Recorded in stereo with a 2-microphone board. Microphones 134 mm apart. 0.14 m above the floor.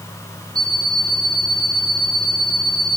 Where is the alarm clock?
5° left (ahead or behind), 8 m.